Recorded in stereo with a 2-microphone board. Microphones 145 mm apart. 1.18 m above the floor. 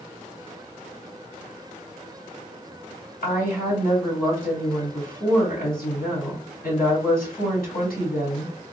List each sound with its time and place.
3.2 s a woman speaking: 85° left, 3 m